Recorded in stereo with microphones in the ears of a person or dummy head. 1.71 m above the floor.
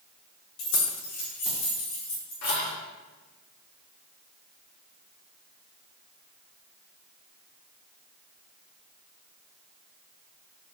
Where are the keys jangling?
65° left (ahead or behind), 1.6 m.